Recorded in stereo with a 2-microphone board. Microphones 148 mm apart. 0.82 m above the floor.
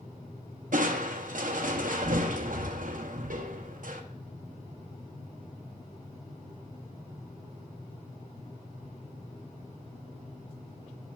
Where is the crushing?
70° right (ahead or behind), 0.6 m.